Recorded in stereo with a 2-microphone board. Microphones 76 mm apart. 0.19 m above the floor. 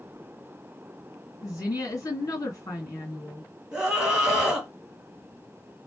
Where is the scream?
10° right (ahead or behind), 1.7 m.